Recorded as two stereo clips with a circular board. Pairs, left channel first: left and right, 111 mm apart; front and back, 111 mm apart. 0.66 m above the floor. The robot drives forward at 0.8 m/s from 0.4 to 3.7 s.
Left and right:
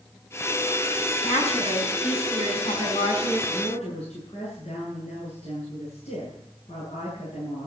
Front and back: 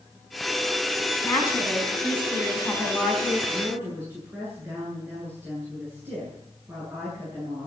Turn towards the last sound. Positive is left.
turn(degrees=110)